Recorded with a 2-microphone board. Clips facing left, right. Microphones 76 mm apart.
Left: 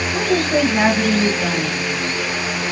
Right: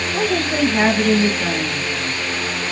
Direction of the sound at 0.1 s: 10° left (ahead or behind).